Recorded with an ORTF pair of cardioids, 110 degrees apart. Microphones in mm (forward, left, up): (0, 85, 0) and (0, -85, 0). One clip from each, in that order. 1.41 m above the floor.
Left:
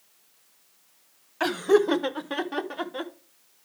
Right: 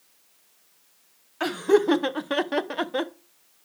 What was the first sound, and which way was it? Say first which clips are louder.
Laughter: even; 10° left.